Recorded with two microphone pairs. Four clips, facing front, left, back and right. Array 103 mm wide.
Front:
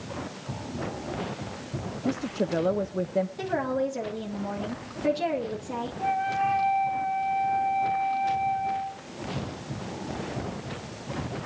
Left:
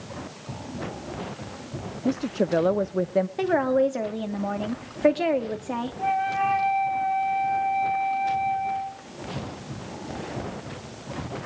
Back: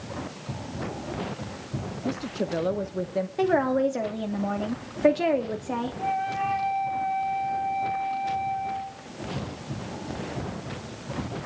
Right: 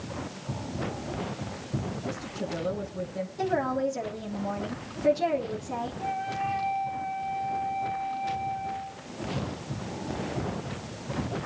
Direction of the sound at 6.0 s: 90° left.